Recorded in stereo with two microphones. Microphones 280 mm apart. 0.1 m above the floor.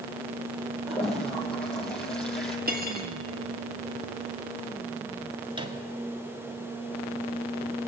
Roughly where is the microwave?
Centre.